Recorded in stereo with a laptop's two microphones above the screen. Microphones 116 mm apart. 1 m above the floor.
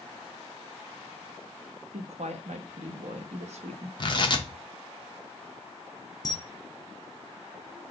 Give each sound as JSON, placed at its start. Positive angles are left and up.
{"t": 1.9, "sound": "a woman speaking", "side_deg": -70, "distance_m": 0.9}
{"t": 4.0, "sound": "tearing paper", "side_deg": 45, "distance_m": 0.7}
{"t": 6.2, "sound": "a camera shutter", "side_deg": 35, "distance_m": 0.8}